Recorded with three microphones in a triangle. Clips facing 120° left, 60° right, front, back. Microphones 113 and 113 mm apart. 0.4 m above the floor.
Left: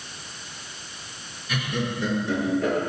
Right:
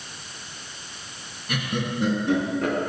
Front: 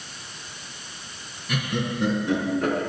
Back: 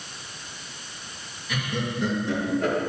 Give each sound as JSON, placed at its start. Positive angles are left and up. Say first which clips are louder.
{"t": 1.5, "sound": "laughter", "louder": "even, front 2 dB", "azimuth_deg": -25, "distance_m": 4.0}